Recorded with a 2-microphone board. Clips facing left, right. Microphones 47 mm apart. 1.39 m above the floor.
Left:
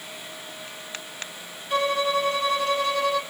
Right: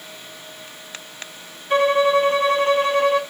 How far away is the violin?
About 1.4 m.